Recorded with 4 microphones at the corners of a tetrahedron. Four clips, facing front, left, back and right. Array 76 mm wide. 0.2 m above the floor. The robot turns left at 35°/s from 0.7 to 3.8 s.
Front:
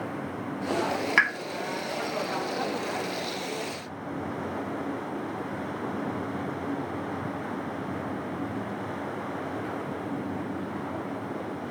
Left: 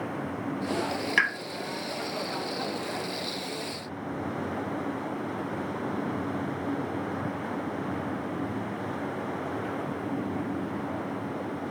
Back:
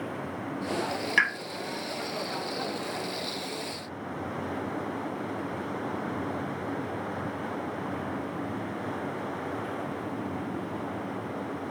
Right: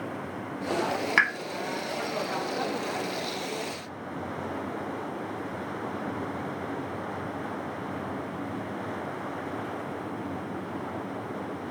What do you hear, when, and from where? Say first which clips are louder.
1.2 s a pop: right 1 dB, front 1 dB; 45° right, 0.6 m; by 1.3 s 50° right, 0.6 m